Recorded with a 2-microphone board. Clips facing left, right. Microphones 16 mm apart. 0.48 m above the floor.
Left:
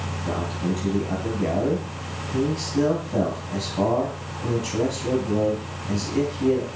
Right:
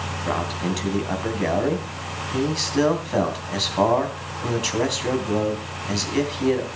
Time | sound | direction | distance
0.3 | a man speaking | 50° right (ahead or behind) | 3 m